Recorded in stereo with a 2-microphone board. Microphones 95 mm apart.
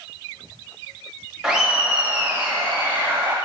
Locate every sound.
1.4 s laughter: 5° right (ahead or behind), 0.9 m; by 3.4 s 25° right (ahead or behind), 1.3 m